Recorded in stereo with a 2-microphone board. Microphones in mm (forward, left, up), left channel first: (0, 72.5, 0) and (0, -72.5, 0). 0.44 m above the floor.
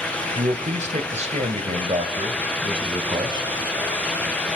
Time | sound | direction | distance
0.3 | a man speaking | 60° right (ahead or behind) | 1.9 m